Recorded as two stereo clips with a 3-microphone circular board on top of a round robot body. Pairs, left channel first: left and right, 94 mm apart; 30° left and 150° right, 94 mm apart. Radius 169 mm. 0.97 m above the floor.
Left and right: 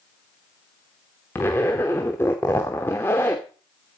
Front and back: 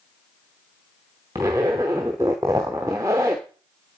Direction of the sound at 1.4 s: 150° left.